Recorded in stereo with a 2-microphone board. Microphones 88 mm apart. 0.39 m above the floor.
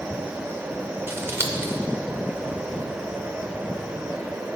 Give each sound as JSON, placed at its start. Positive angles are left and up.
{"t": 1.1, "sound": "scissors", "side_deg": -25, "distance_m": 0.6}